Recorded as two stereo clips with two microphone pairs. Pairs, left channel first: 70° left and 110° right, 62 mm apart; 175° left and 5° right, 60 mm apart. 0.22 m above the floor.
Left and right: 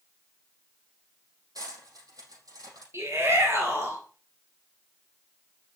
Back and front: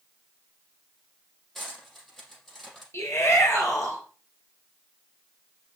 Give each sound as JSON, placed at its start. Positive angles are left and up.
{"t": 1.6, "sound": "cutlery clinking", "azimuth_deg": -100, "distance_m": 4.5}
{"t": 2.9, "sound": "a shout", "azimuth_deg": -150, "distance_m": 4.0}